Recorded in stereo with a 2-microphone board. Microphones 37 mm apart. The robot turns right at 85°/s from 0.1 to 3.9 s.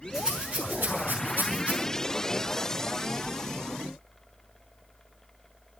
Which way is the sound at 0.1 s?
10° right (ahead or behind).